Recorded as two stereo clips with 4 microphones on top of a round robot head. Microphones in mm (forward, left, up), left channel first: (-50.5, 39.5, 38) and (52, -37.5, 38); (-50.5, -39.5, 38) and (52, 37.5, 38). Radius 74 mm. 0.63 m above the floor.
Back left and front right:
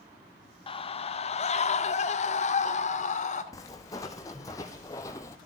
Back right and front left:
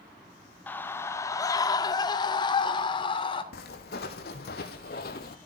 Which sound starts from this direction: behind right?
Footsteps, at 3.5 s.